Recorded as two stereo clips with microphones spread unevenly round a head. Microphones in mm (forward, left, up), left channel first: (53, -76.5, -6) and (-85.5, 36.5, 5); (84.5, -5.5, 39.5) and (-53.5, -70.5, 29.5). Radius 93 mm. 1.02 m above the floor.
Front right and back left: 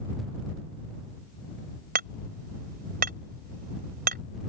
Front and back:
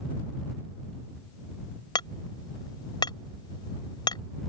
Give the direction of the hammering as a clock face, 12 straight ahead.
9 o'clock.